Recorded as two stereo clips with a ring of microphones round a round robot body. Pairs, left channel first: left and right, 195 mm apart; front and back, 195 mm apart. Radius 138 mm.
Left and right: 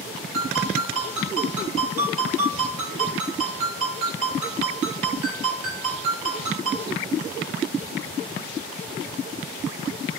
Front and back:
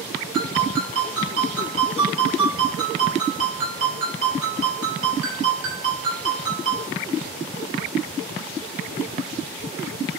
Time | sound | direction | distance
0.3 | a ringtone | 135° right | 6 m